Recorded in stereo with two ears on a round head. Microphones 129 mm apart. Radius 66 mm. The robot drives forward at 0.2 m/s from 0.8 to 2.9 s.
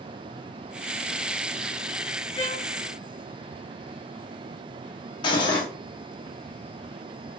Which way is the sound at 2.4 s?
35° left (ahead or behind).